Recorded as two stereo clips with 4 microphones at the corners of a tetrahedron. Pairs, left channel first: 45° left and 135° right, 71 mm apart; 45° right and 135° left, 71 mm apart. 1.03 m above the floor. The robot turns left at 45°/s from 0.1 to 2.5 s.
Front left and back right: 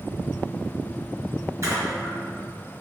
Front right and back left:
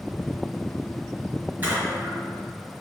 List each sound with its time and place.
1.6 s a splash: 165° right, 1.3 m; by 2.1 s 170° left, 1.3 m